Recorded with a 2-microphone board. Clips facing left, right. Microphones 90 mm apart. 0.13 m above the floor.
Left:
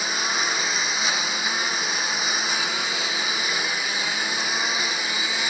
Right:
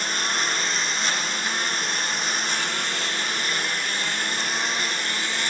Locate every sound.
0.0 s a lawn mower: 5° left (ahead or behind)